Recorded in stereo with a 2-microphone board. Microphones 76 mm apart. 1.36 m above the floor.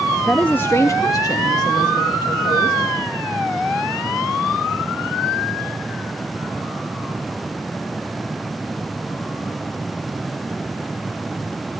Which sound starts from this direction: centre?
A woman speaking, at 0.3 s.